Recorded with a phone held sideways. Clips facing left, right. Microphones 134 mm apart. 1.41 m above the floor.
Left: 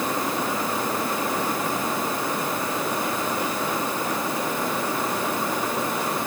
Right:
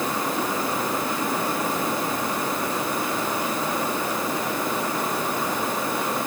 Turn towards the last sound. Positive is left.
No sound to turn to.